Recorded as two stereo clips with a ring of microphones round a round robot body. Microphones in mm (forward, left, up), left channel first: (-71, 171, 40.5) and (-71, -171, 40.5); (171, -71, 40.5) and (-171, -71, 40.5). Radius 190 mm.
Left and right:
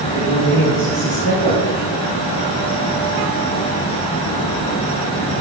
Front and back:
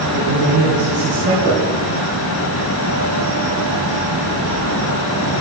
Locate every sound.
0.1 s a man speaking: 145° left, 4 m
1.4 s knocking: 75° left, 6 m